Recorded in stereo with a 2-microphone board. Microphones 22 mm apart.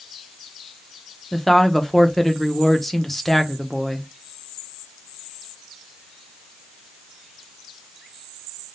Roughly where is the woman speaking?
Centre.